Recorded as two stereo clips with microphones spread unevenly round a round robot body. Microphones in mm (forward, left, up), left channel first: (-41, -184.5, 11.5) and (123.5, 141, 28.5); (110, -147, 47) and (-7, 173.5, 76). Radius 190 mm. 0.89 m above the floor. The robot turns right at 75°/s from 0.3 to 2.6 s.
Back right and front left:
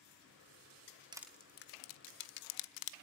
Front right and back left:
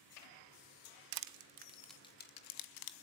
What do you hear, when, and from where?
1.1 s crushing: 140° left, 0.8 m; by 3.0 s 110° right, 0.8 m